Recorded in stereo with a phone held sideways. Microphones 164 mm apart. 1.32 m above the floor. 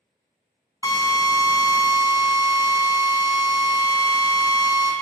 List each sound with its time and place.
0.8 s a drill: 20° left (ahead or behind), 0.5 m